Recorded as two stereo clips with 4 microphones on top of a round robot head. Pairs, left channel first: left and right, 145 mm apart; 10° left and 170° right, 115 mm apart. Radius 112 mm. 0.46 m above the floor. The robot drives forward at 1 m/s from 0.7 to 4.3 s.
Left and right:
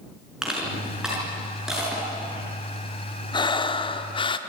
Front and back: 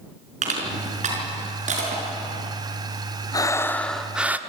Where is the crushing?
175° right, 5 m.